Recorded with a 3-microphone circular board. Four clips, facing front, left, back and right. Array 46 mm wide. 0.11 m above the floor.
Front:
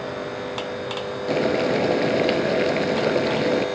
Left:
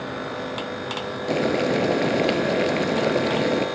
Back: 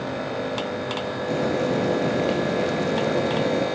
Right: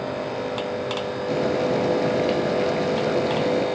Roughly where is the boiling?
Ahead left.